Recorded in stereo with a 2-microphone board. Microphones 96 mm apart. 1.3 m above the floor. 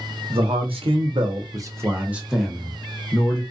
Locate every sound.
0.3 s a man speaking: 85° right, 1.0 m; by 3.4 s 20° left (ahead or behind), 1.2 m